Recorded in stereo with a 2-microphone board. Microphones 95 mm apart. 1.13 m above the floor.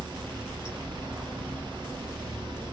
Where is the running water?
50° right (ahead or behind), 1.3 m.